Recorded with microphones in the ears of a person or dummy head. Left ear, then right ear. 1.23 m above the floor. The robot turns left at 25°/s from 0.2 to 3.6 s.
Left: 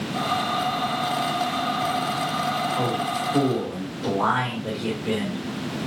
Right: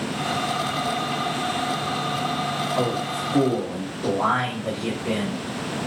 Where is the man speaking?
20° right (ahead or behind), 1.6 m; by 5.4 s centre (ahead or behind), 1.6 m.